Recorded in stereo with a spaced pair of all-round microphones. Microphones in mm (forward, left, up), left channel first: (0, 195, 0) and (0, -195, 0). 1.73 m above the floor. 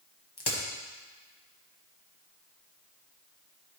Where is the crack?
75° left (ahead or behind), 1.3 m.